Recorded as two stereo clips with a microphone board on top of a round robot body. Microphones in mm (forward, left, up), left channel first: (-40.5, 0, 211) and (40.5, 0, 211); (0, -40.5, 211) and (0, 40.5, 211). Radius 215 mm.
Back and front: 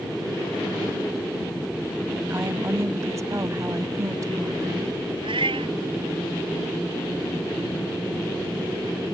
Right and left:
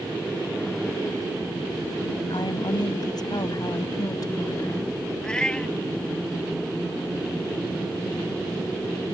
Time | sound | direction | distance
2.3 | a woman speaking | 60° right | ?
5.2 | a cat meowing | 10° right | ?